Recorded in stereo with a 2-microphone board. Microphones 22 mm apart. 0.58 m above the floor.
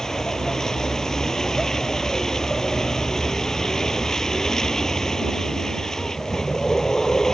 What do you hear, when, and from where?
0.0 s a vehicle: 25° left (ahead or behind)